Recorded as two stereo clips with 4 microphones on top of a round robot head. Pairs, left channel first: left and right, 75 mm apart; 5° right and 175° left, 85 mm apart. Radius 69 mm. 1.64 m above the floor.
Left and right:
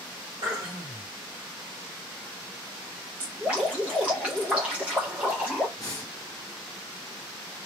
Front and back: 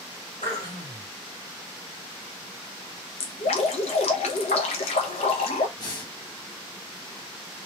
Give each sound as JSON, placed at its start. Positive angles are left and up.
{"t": 0.4, "sound": "throat clearing", "azimuth_deg": -35, "distance_m": 1.7}
{"t": 3.2, "sound": "dripping", "azimuth_deg": -10, "distance_m": 0.7}
{"t": 5.8, "sound": "breathing", "azimuth_deg": 35, "distance_m": 1.3}